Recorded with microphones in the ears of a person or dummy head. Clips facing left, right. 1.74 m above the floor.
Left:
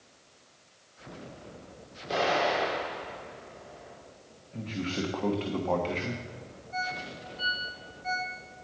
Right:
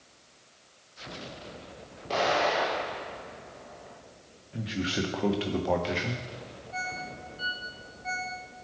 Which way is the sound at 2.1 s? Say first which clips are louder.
Right 1 dB; 10° left (ahead or behind).